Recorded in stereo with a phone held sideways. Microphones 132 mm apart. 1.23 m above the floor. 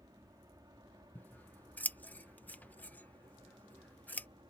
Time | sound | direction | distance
0.0 | an aircraft | 30° right (ahead or behind) | ?
1.1 | scissors | 15° left (ahead or behind) | ?